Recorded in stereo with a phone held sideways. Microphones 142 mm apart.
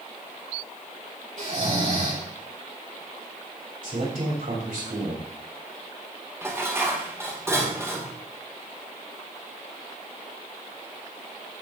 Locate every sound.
1.4 s snoring: 70° right (ahead or behind), 7.5 m
3.8 s a man speaking: 75° right (ahead or behind), 7 m
6.4 s dishes clattering: 20° right (ahead or behind), 3 m